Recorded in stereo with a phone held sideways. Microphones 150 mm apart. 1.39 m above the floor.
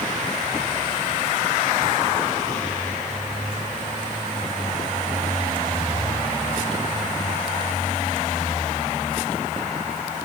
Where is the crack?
I don't hear a crack.